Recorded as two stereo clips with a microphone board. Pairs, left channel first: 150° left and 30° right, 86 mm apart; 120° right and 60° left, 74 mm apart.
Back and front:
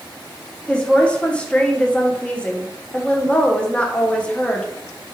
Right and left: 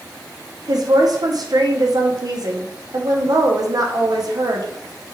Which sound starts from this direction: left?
A woman speaking, at 0.7 s.